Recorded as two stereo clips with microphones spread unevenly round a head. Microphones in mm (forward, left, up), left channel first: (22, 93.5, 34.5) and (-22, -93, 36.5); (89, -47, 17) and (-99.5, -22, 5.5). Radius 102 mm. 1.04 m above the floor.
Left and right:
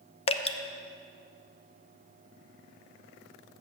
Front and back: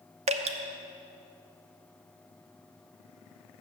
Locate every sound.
0.3 s dripping: 130° left, 0.5 m